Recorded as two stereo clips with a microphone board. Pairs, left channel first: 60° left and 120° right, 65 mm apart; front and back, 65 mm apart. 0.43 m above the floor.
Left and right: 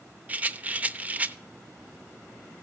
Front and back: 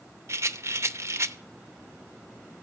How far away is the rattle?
About 0.5 m.